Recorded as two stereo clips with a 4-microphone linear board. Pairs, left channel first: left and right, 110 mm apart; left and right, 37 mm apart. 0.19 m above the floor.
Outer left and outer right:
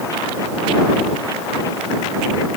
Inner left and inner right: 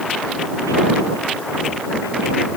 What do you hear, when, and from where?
Only background noise.